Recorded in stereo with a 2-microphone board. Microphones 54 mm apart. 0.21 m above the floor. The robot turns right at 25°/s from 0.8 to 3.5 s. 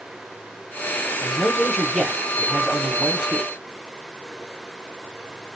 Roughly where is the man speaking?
Centre.